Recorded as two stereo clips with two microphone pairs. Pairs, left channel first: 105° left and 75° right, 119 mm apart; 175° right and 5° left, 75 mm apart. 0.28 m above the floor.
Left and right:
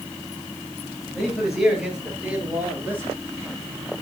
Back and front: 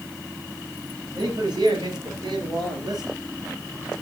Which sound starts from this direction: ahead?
A man speaking, at 1.1 s.